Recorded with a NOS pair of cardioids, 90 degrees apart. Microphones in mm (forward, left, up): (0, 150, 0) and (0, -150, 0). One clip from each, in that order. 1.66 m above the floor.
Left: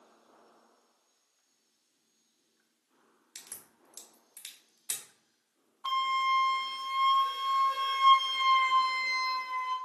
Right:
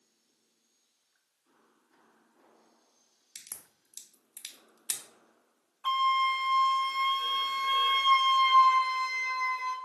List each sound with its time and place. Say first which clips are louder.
3.4 s a crack: right 1 dB; 20° right, 0.5 m
5.8 s a flute: right 2 dB; 25° right, 0.8 m